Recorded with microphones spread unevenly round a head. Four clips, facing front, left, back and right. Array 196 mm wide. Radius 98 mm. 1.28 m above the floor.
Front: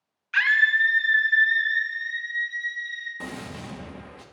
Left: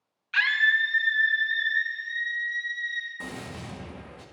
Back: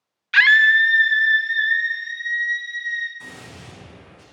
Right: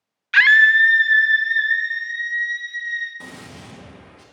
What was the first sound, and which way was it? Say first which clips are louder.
A scream: right 10 dB, back 6 dB; 130° right.